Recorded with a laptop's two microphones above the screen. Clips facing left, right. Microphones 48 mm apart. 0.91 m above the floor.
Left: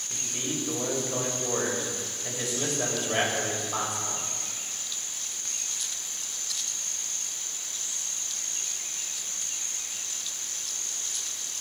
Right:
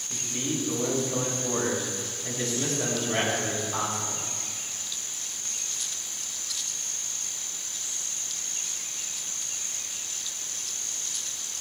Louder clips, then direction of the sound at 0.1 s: Right 2 dB; 15° left (ahead or behind).